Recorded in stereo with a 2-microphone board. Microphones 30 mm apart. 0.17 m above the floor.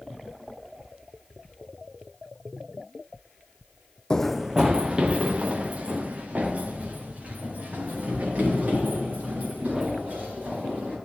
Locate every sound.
4.1 s running footsteps: 25° left (ahead or behind), 0.5 m; by 10.9 s 55° right (ahead or behind), 8.5 m